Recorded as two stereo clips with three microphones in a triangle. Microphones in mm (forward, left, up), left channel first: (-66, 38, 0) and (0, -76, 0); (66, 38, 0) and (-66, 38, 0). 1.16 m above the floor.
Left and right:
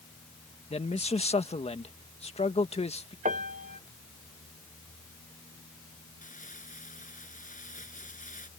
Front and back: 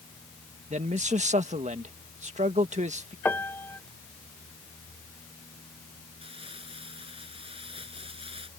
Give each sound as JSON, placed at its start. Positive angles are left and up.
{"t": 0.7, "sound": "a man speaking", "azimuth_deg": 155}
{"t": 3.2, "sound": "a piano", "azimuth_deg": -75}
{"t": 6.2, "sound": "crumpling", "azimuth_deg": 135}